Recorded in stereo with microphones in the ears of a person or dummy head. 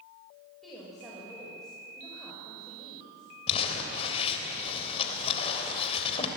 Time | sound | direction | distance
0.6 | a woman speaking | centre (ahead or behind) | 5 m
3.5 | crumpling | 35° left (ahead or behind) | 3 m